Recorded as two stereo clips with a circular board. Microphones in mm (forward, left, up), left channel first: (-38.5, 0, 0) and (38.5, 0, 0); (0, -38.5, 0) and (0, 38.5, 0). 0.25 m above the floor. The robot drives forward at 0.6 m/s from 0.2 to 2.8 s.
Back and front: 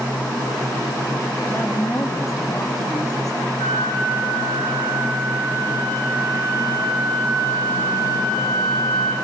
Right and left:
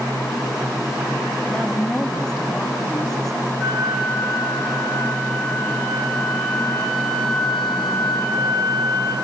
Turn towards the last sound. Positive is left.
turn(degrees=175)